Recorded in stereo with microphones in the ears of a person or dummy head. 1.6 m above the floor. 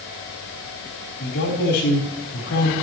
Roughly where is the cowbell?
I don't hear a cowbell.